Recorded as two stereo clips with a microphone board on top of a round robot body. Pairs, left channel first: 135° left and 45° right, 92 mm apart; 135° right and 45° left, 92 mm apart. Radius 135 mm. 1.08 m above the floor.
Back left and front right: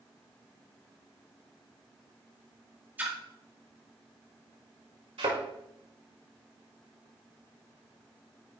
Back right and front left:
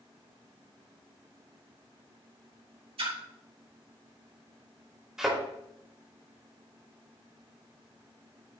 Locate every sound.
3.0 s a splash: 25° left, 2.0 m
5.2 s a thud: 40° right, 4 m